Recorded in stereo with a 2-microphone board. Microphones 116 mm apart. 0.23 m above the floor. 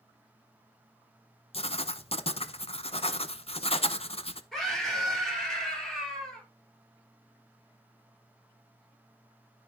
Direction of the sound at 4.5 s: 5° left (ahead or behind).